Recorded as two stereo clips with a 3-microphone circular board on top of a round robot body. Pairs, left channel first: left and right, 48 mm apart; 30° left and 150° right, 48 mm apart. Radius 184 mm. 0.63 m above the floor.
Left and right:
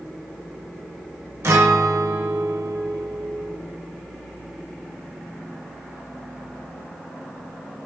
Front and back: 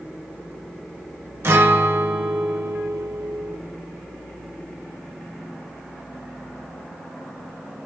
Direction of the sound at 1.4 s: 115° right.